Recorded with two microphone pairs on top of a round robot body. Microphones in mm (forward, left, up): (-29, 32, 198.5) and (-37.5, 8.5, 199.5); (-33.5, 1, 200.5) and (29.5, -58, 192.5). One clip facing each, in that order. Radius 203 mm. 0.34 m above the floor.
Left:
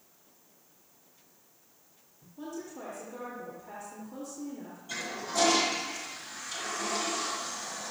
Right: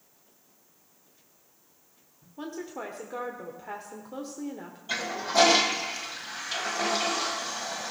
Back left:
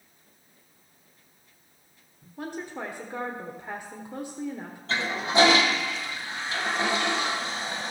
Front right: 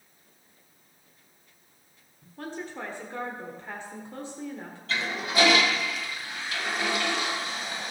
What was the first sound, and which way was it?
A woman speaking, 145° right.